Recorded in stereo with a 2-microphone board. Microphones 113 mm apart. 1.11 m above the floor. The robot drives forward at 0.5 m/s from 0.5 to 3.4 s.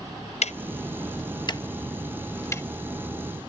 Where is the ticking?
75° left (ahead or behind); by 2.7 s 25° left (ahead or behind).